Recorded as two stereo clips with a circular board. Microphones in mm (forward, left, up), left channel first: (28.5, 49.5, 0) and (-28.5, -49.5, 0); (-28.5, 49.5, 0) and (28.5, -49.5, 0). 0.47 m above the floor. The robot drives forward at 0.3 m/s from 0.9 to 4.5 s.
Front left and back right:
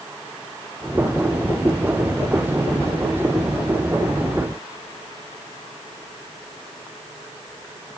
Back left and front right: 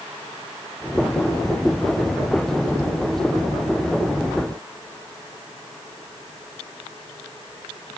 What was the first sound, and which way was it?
Only background noise.